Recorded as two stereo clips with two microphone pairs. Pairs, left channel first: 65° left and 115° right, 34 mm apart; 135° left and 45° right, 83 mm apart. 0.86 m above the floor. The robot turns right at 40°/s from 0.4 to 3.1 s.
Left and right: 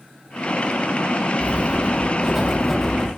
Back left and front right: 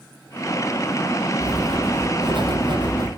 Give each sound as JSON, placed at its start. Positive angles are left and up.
{"t": 1.4, "sound": "writing", "azimuth_deg": -75, "distance_m": 5.5}